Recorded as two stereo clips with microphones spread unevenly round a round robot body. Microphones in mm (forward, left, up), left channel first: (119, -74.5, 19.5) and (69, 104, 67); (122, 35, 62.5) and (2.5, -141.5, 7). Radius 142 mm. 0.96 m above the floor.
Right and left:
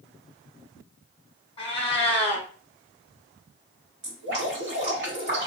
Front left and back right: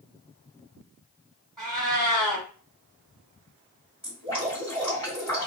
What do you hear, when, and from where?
1.6 s a cat meowing: 10° right, 0.9 m
4.0 s dripping: 155° left, 1.4 m